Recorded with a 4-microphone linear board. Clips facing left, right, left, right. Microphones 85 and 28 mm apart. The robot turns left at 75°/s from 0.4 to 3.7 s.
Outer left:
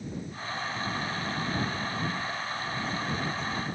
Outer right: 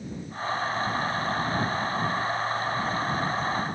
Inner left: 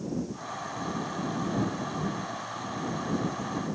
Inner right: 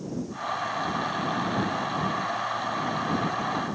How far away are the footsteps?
No footsteps in this recording.